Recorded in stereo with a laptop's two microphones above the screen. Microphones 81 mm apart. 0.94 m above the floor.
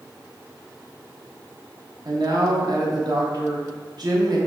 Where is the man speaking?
55° right (ahead or behind), 0.8 m.